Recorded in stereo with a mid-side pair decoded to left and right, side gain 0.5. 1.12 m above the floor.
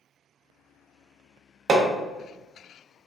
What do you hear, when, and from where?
1.7 s hammering: 50° right, 0.7 m